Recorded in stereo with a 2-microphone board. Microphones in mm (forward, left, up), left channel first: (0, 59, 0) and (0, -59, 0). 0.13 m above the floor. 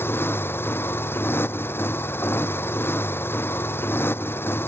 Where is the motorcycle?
15° left (ahead or behind).